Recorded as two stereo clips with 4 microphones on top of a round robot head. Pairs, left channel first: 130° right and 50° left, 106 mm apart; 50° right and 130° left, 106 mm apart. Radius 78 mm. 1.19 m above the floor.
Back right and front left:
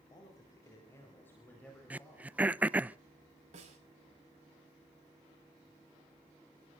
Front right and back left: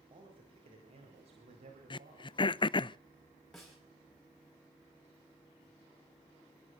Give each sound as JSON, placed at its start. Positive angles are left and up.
{"t": 0.1, "sound": "a man speaking", "azimuth_deg": 175, "distance_m": 4.5}
{"t": 1.9, "sound": "throat clearing", "azimuth_deg": -25, "distance_m": 0.5}
{"t": 3.5, "sound": "a snare drum", "azimuth_deg": 35, "distance_m": 5.5}